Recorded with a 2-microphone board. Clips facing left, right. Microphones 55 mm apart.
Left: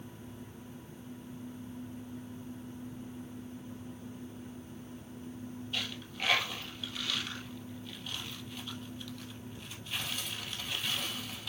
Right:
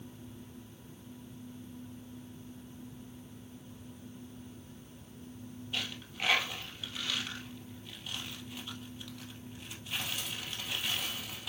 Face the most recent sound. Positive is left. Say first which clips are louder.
# right 1 dB
turn(degrees=-10)  # may be behind; listen again after turning